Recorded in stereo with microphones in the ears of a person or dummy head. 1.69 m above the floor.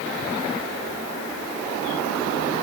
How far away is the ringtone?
No ringtone in this recording.